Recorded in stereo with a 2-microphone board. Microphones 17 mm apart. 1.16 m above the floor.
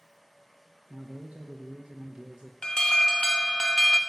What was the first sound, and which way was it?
A man speaking, 70° right (ahead or behind).